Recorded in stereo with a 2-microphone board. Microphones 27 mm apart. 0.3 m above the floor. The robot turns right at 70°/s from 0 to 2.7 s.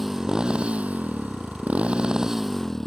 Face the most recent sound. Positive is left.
turn(degrees=10)